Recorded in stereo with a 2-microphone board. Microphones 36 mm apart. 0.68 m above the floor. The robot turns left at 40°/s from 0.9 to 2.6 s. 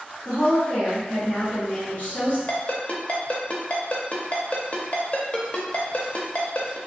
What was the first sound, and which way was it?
A woman speaking, 150° left.